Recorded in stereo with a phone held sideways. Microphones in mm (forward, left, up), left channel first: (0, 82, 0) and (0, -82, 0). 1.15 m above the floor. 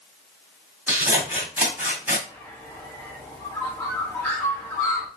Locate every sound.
0.9 s scissors: 10° right (ahead or behind), 1.9 m
2.3 s a bird: 10° left (ahead or behind), 1.8 m